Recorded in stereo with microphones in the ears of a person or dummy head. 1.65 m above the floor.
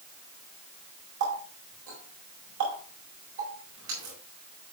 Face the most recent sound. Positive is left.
turn(degrees=-65)  # may be behind; listen again after turning